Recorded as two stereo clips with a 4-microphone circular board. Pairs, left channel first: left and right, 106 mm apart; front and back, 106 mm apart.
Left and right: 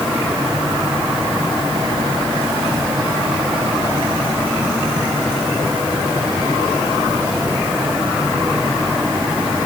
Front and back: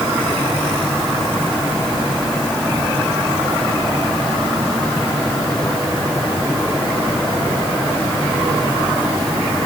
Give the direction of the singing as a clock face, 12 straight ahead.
I don't hear singing.